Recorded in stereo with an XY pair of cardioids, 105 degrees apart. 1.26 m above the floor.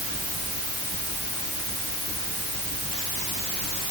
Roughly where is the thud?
No thud in this recording.